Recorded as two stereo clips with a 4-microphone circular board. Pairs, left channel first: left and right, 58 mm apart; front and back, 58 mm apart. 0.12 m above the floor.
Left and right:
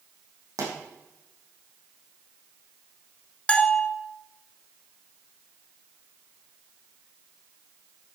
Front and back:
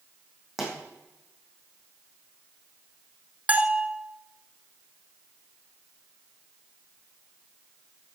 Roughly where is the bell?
Behind left.